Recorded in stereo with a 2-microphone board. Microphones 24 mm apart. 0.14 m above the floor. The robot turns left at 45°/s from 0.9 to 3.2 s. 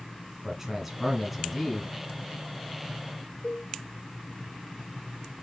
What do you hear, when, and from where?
0.4 s a man speaking: 10° right (ahead or behind), 1.1 m; by 1.9 s 5° left (ahead or behind), 1.1 m
3.4 s a cowbell: 35° left (ahead or behind), 0.8 m